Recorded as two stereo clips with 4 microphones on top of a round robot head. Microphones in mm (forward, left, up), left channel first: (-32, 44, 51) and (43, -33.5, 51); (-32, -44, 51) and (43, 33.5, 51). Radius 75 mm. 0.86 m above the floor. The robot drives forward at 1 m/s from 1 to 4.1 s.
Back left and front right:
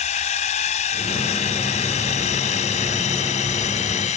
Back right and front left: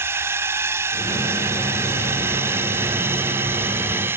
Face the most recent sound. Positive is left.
turn(degrees=120)